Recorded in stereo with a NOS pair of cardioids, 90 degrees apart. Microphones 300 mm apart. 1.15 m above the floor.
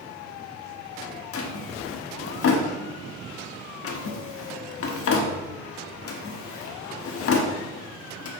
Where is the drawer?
50° left, 1.3 m.